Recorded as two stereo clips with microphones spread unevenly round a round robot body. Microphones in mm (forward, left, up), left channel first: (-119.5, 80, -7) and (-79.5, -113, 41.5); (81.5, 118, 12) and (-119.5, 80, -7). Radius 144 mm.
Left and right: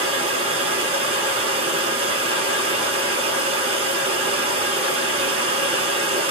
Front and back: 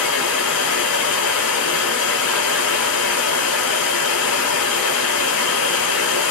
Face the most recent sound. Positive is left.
turn(degrees=-10)